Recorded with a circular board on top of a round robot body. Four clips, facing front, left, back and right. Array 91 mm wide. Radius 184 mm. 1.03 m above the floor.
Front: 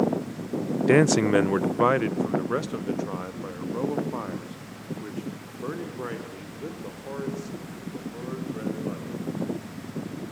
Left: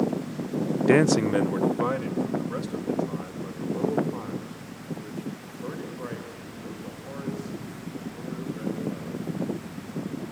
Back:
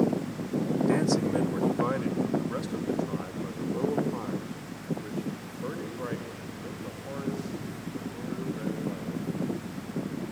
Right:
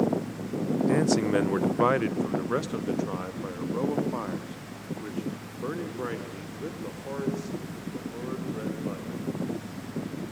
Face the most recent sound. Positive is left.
turn(degrees=-50)